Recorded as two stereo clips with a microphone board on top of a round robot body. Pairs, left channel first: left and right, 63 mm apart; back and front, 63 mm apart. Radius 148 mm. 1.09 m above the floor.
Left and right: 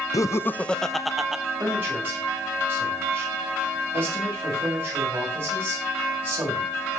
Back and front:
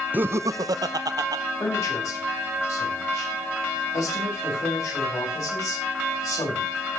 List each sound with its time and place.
0.1 s laughter: 65° left, 0.7 m; by 1.4 s 10° right, 1.5 m
1.6 s a man speaking: 150° right, 8.5 m